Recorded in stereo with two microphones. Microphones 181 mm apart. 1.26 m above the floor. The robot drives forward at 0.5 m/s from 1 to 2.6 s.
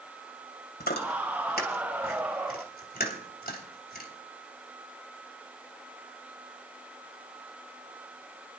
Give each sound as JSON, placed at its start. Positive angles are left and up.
{"t": 0.8, "sound": "chewing", "side_deg": 70, "distance_m": 3.0}